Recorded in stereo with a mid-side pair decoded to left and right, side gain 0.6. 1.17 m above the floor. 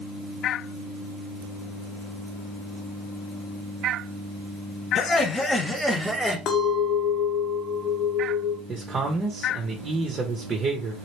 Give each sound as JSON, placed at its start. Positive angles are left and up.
{"t": 5.0, "sound": "laughter", "azimuth_deg": 45, "distance_m": 0.9}
{"t": 6.5, "sound": "a clink", "azimuth_deg": 60, "distance_m": 0.8}
{"t": 8.7, "sound": "a man speaking", "azimuth_deg": -35, "distance_m": 0.8}